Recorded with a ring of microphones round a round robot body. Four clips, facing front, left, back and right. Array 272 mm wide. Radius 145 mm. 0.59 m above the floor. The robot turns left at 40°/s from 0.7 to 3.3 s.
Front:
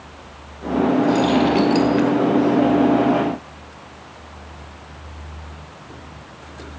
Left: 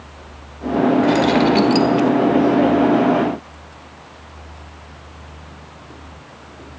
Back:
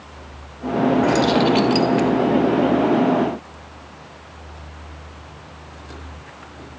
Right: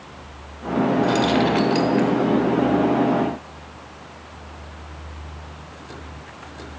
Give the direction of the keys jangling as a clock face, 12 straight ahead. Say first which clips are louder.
Left 4 dB, even; 6 o'clock.